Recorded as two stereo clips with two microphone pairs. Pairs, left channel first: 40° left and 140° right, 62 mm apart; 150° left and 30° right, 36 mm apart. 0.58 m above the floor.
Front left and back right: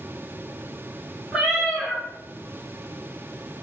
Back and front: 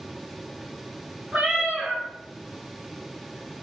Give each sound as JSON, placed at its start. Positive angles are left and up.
{"t": 1.3, "sound": "a cat meowing", "azimuth_deg": -65, "distance_m": 1.8}